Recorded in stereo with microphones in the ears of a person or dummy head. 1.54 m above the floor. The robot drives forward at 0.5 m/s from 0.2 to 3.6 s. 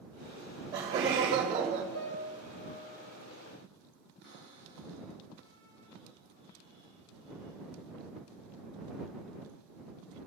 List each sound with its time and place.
0.4 s laughter: 20° right (ahead or behind), 1.6 m; by 1.8 s 35° right (ahead or behind), 0.9 m
1.9 s a piano: 65° left (ahead or behind), 5 m; by 3.1 s 70° left (ahead or behind), 5 m
4.2 s a cupboard door: 60° left (ahead or behind), 4 m